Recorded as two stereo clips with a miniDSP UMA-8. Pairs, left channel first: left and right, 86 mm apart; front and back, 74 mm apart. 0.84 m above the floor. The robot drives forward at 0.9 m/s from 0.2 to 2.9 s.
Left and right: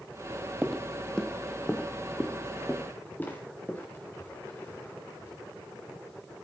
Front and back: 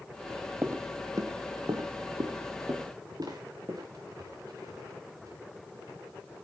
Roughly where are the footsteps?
Behind.